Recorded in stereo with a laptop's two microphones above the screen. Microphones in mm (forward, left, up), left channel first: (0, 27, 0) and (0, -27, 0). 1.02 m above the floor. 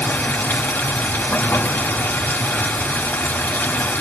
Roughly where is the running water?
Left.